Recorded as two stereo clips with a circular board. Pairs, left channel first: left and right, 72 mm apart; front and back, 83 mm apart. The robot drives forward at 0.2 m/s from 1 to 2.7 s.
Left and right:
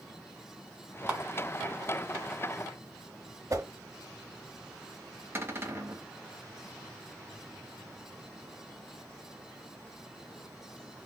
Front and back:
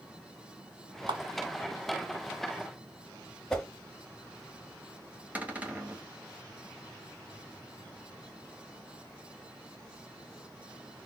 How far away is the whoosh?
About 0.7 m.